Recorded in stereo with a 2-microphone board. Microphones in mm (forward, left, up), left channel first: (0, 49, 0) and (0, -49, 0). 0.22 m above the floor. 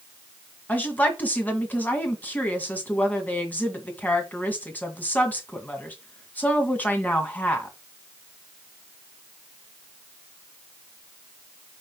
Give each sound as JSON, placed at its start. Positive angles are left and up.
{"t": 0.7, "sound": "a woman speaking", "side_deg": 20, "distance_m": 2.0}